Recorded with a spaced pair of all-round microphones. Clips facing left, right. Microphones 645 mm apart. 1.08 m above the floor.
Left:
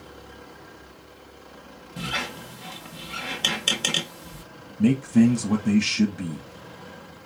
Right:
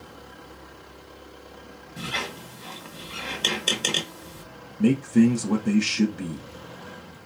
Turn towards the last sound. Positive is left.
turn(degrees=15)  # may be behind; listen again after turning